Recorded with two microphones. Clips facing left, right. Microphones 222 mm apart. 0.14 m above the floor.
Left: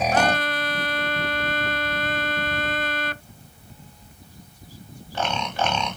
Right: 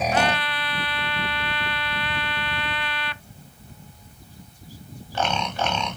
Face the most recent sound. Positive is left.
turn(degrees=45)  # may be behind; listen again after turning